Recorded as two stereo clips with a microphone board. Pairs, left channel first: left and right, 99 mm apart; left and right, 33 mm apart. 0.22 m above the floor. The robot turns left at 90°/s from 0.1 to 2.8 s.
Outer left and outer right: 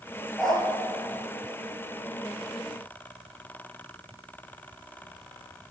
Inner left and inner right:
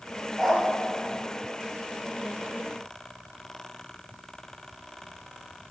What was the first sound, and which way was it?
A dog barking, 5° right (ahead or behind).